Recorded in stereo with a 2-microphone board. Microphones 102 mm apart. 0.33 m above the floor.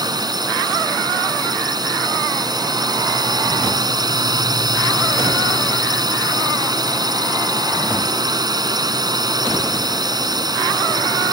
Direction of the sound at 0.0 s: 40° right (ahead or behind).